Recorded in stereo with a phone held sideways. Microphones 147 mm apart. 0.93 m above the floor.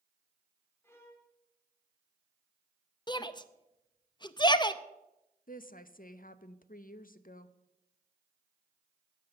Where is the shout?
30° left (ahead or behind), 0.6 m.